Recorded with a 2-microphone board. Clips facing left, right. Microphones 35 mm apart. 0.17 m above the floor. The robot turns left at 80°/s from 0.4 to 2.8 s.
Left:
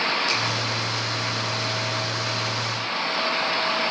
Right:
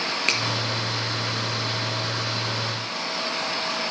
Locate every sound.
0.3 s a finger snap: 60° right (ahead or behind), 4 m